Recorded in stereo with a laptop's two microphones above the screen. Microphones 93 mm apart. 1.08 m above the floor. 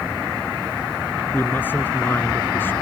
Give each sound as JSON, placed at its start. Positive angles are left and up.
{"t": 1.3, "sound": "a man speaking", "side_deg": 20}